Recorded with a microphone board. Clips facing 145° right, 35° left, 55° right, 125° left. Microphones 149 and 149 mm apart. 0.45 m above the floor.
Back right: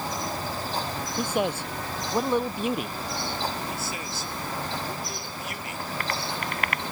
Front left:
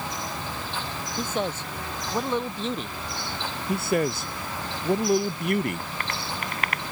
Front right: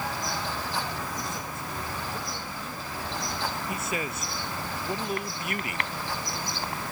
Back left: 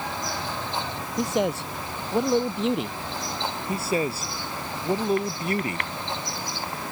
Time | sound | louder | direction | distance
1.2 | a man speaking | back right 2 dB, back left 11 dB | 135° left | ?
3.7 | a man speaking | front left 10 dB, back left 6 dB | 65° left | ?